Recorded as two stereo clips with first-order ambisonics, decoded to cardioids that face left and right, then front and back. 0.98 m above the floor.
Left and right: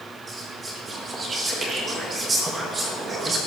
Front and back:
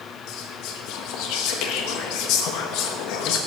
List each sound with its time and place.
0.3 s whispering: 20° right, 0.9 m